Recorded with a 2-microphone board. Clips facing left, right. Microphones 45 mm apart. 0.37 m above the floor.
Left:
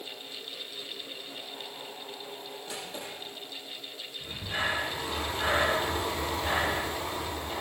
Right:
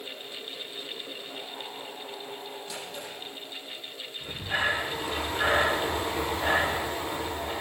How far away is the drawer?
About 8.5 m.